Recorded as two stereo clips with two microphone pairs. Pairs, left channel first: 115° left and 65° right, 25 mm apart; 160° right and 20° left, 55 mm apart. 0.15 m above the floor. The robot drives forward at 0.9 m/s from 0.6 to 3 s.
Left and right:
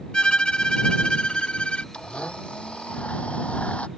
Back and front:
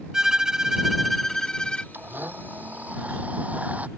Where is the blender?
75° left; by 3.9 s 85° left.